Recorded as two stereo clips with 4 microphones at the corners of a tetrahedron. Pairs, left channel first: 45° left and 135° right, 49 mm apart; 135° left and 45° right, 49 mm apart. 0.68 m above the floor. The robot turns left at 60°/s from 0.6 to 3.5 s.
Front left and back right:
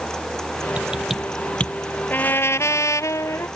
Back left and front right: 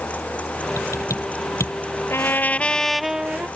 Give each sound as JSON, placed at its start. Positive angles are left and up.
{"t": 0.8, "sound": "typing on a keyboard", "azimuth_deg": 160}
{"t": 2.1, "sound": "a trumpet", "azimuth_deg": 95}